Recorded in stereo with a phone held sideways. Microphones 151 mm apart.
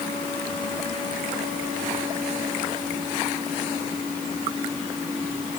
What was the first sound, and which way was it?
Only background noise.